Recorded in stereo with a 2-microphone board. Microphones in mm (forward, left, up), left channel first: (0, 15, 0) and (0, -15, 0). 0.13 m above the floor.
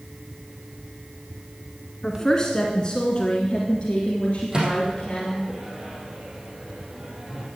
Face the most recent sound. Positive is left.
turn(degrees=-25)  # may be behind; listen again after turning